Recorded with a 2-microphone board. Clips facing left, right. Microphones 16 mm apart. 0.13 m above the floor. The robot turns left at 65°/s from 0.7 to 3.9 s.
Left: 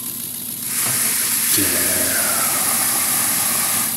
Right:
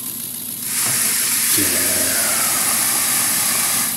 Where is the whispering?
25° left (ahead or behind), 1.1 m; by 3.9 s 15° right (ahead or behind), 1.1 m.